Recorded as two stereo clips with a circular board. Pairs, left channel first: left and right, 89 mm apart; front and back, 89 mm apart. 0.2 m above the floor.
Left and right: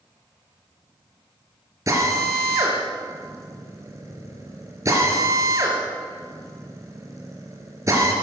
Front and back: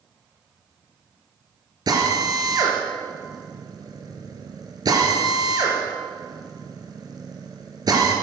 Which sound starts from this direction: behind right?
A drill, at 1.9 s.